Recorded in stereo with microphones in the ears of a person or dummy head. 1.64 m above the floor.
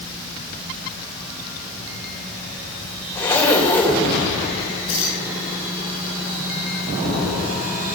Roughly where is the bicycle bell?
I don't hear a bicycle bell.